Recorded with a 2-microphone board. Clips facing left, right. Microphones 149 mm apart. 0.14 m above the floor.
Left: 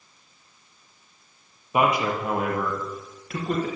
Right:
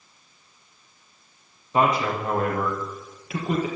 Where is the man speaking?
15° left (ahead or behind), 3.5 m; by 3.7 s 10° right (ahead or behind), 3 m.